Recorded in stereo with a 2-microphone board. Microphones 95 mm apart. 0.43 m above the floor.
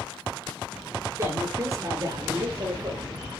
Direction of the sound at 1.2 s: 30° right (ahead or behind).